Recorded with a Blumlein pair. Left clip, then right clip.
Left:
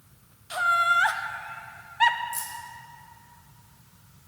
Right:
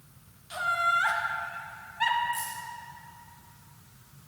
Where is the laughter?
70° left, 0.9 m.